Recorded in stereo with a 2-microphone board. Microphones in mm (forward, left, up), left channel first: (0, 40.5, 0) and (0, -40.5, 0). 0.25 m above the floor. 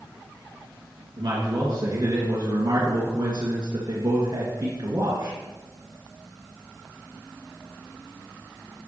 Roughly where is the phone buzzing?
No phone buzzing in this recording.